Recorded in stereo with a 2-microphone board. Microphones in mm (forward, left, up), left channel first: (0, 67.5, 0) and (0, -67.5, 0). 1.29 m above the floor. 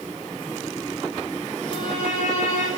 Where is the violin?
60° left (ahead or behind), 5 m.